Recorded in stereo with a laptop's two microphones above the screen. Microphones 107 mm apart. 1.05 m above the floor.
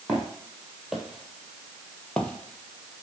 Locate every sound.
0.1 s footsteps: 10° right (ahead or behind), 1.4 m; by 3.0 s 15° left (ahead or behind), 1.2 m